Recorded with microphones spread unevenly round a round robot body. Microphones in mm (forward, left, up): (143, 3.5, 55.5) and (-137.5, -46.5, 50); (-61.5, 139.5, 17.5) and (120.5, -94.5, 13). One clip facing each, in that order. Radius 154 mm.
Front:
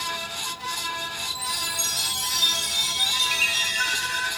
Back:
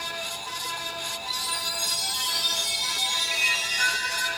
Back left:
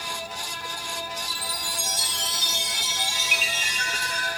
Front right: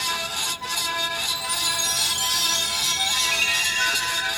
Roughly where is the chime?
Left.